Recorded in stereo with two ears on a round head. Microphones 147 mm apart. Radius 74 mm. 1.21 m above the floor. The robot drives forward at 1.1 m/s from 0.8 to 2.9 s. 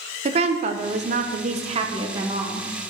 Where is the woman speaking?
40° right (ahead or behind), 0.9 m; by 2.7 s 20° right (ahead or behind), 1.8 m.